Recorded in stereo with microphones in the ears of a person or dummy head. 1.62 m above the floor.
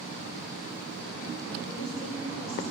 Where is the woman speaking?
85° left, 5.5 m.